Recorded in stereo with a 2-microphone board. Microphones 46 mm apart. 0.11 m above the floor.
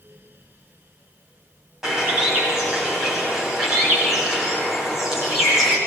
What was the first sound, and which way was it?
A bird, 10° right (ahead or behind).